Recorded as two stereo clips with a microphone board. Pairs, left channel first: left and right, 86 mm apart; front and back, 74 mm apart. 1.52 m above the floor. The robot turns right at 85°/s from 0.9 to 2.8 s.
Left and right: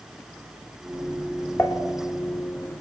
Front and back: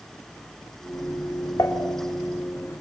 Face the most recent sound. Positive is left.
turn(degrees=135)